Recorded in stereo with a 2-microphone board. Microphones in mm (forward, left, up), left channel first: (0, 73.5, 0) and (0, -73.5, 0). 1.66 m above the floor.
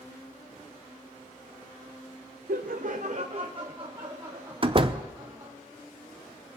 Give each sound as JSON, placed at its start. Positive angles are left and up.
{"t": 2.5, "sound": "laughter", "side_deg": -80, "distance_m": 0.5}
{"t": 4.6, "sound": "a door slam", "side_deg": -35, "distance_m": 0.7}